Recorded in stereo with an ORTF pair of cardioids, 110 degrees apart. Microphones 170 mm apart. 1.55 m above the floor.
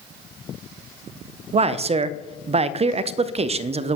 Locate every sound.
1.5 s a man speaking: 40° right, 0.5 m